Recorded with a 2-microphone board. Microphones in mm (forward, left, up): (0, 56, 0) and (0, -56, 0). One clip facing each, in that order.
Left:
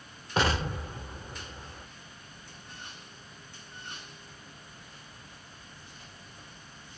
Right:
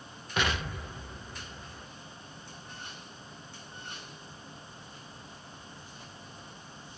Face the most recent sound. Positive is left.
turn(degrees=35)  # may be behind; listen again after turning